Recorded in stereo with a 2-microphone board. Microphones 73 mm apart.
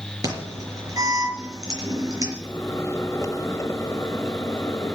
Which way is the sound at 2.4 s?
45° left (ahead or behind).